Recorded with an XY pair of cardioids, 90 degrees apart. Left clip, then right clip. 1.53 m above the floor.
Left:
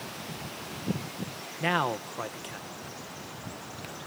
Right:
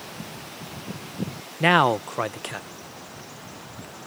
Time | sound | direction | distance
1.6 | a man speaking | 65° right | ?